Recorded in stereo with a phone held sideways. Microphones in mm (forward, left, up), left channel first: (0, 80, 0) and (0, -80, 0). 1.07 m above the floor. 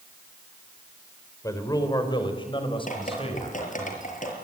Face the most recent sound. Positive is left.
turn(degrees=55)  # may be behind; listen again after turning